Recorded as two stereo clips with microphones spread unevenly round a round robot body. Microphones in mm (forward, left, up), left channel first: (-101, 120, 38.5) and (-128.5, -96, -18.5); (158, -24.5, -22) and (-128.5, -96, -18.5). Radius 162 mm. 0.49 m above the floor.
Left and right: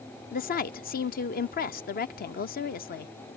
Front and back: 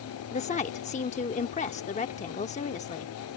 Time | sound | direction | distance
0.3 | a woman speaking | 50° left | ?